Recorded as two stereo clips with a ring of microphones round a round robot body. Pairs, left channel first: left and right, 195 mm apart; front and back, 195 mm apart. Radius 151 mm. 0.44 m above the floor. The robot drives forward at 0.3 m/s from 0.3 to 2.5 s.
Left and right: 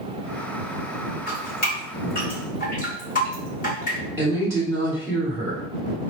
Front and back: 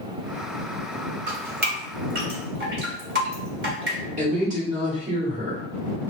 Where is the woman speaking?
160° right, 1.5 m.